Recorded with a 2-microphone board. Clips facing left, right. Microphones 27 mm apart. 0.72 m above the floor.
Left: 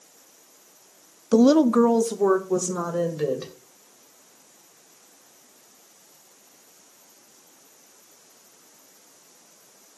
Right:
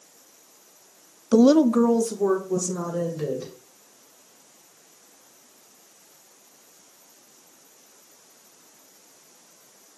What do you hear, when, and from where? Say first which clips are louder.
1.3 s a woman speaking: even; 10° right (ahead or behind), 0.5 m; by 3.5 s 40° left (ahead or behind), 3 m